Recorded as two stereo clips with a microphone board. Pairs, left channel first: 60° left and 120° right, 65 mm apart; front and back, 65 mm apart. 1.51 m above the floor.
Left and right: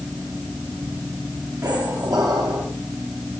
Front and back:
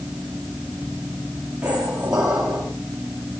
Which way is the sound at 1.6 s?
105° right.